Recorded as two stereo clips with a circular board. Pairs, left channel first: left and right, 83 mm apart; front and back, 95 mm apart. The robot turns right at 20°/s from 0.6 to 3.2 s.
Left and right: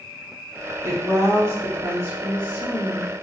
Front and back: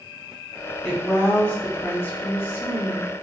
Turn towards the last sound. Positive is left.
turn(degrees=-30)